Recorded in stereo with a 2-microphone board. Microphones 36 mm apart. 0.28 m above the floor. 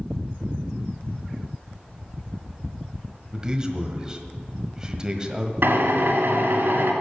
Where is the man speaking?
20° right (ahead or behind), 1.4 m.